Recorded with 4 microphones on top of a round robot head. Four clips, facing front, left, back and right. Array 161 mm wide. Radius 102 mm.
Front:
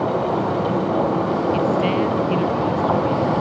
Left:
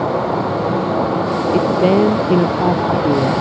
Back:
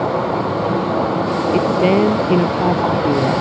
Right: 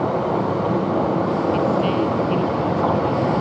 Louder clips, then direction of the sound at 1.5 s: Left 6 dB, back 8 dB; 125° left.